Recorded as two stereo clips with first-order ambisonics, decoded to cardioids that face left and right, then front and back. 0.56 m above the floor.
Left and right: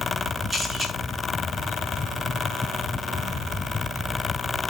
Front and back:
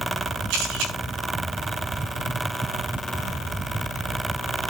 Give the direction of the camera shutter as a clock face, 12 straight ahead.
5 o'clock.